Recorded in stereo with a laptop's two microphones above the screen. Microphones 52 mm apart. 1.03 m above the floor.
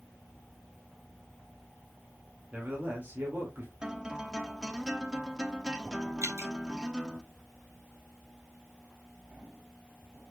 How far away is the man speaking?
About 2.5 m.